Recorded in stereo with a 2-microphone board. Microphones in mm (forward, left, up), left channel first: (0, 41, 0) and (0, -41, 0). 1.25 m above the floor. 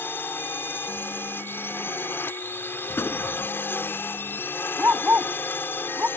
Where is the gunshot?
30° left (ahead or behind).